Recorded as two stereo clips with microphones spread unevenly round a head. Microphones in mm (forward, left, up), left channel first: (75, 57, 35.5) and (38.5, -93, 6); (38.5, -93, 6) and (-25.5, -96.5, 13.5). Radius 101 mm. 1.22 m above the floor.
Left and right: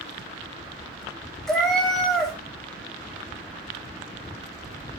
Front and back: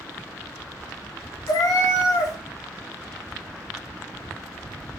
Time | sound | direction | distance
1.5 | a cat meowing | straight ahead | 0.5 m